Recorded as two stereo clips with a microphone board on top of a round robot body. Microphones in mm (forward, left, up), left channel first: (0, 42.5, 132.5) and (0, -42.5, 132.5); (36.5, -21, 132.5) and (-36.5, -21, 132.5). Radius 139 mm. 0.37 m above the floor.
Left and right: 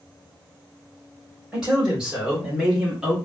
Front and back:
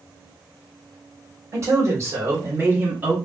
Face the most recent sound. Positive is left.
turn(degrees=-155)